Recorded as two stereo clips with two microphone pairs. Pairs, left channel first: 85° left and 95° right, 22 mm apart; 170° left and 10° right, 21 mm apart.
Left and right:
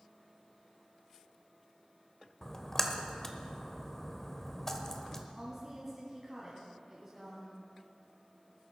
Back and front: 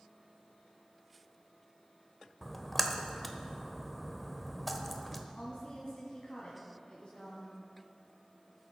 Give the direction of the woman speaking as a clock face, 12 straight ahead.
5 o'clock.